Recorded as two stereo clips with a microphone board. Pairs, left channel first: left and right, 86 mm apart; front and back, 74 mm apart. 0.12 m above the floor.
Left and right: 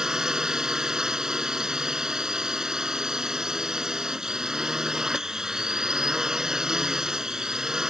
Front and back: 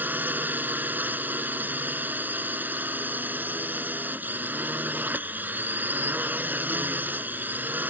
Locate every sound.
0.0 s a drone: 165° right